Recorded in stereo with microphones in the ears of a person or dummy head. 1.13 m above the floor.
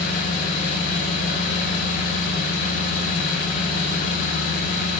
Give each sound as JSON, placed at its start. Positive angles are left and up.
{"t": 0.0, "sound": "an engine running", "side_deg": 55, "distance_m": 6.0}